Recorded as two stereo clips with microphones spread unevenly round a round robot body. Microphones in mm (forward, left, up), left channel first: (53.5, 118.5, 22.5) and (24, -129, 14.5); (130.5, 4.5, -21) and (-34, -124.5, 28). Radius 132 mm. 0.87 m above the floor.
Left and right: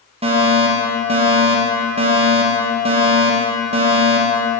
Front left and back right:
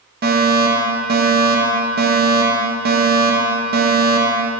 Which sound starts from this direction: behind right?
A fire alarm, at 0.2 s.